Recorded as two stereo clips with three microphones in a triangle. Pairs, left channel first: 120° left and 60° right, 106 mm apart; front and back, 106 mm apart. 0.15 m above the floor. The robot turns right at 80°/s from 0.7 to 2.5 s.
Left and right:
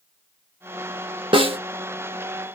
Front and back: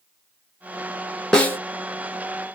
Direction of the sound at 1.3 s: 85° right.